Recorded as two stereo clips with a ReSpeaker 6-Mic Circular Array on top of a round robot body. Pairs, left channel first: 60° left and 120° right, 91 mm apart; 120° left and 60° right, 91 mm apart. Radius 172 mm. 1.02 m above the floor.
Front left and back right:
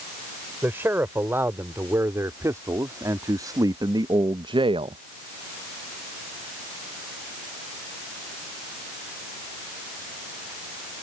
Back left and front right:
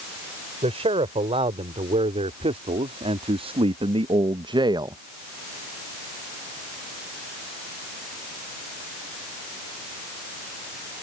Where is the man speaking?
50° right; by 5.0 s 110° right.